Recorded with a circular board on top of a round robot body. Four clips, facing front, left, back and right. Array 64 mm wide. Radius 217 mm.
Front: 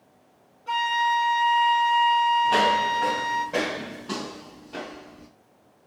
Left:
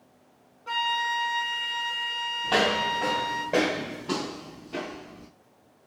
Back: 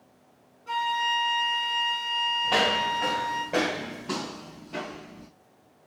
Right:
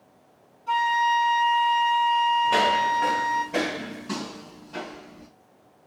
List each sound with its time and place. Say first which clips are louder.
0.7 s a flute: right 6 dB, front 4 dB; 80° left, 0.6 m
2.4 s footsteps: right 4 dB, front 4 dB; 115° left, 1.8 m; by 5.3 s 175° left, 0.8 m